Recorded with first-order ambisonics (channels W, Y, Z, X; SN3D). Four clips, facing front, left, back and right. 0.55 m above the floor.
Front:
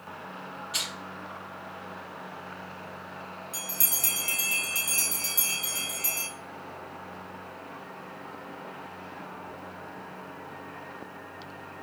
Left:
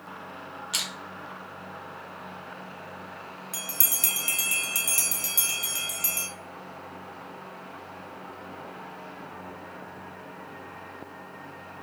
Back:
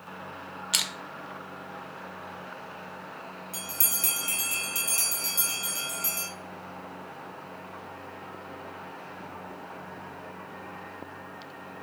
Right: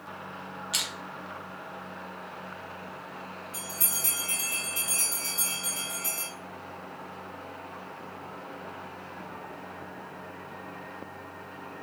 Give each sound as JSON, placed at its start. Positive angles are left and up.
{"t": 0.7, "sound": "crushing", "azimuth_deg": 180, "distance_m": 0.5}
{"t": 3.5, "sound": "a bell", "azimuth_deg": 90, "distance_m": 0.8}